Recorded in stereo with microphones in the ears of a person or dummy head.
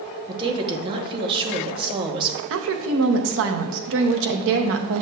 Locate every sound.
0.3 s a woman speaking: 30° right (ahead or behind), 0.9 m
2.5 s a woman speaking: 65° right (ahead or behind), 0.7 m